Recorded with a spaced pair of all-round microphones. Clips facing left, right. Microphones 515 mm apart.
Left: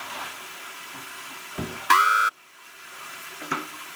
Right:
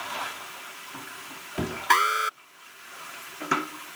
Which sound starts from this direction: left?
An alarm, at 1.9 s.